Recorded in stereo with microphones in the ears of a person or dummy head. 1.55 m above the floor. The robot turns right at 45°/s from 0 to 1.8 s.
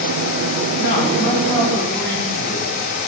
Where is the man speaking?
115° left, 2 m; by 2.7 s 160° left, 2 m.